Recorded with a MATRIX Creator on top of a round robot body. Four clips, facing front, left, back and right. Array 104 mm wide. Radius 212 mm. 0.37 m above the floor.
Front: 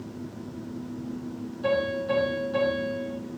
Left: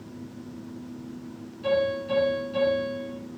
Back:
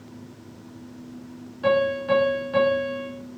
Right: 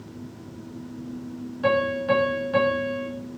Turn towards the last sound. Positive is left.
turn(degrees=-115)